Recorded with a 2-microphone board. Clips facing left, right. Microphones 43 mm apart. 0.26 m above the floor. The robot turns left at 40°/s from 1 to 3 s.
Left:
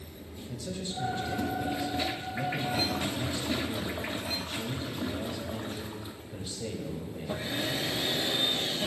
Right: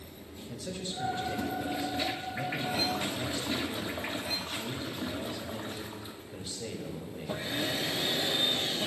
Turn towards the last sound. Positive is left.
turn(degrees=-5)  # may be behind; listen again after turning